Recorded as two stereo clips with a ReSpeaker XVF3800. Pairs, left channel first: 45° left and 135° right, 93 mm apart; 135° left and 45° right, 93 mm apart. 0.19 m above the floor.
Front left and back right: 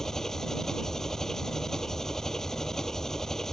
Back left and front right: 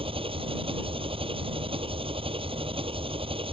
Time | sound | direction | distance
0.0 | an engine running | 40° right | ?